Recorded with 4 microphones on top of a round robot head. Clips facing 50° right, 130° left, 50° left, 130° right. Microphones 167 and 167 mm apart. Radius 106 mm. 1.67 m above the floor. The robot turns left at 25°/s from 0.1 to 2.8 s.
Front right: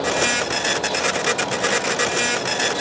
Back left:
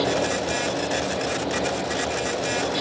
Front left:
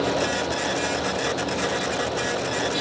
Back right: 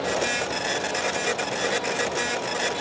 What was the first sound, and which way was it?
Only background noise.